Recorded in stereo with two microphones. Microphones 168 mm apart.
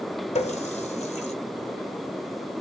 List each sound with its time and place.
0.3 s a running tap: 40° left (ahead or behind), 0.6 m